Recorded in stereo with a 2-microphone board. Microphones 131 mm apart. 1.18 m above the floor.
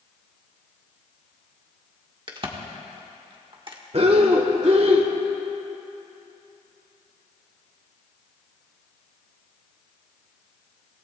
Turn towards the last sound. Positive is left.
turn(degrees=-50)  # may be behind; listen again after turning